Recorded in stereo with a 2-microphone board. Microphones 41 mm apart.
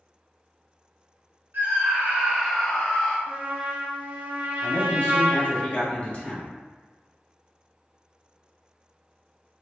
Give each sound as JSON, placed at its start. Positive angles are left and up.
{"t": 1.5, "sound": "a scream", "side_deg": -60, "distance_m": 1.7}
{"t": 3.3, "sound": "a trumpet", "side_deg": -40, "distance_m": 0.7}
{"t": 4.6, "sound": "a man speaking", "side_deg": 40, "distance_m": 1.7}